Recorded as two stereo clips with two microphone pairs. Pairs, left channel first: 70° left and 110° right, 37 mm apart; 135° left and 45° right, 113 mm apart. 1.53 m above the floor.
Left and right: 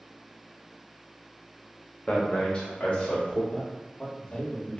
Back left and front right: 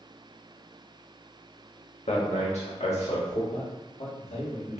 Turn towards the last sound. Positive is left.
turn(degrees=130)